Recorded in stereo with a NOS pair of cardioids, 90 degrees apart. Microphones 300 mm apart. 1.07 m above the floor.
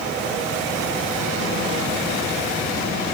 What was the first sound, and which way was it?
Only background noise.